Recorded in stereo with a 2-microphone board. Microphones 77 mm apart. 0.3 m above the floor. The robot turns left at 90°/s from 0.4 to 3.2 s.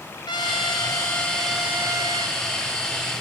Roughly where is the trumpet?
Left.